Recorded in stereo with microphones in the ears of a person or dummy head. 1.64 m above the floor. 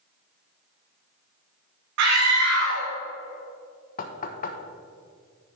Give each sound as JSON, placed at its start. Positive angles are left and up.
{"t": 2.0, "sound": "a scream", "side_deg": -75, "distance_m": 1.2}
{"t": 4.0, "sound": "knocking", "side_deg": 55, "distance_m": 1.0}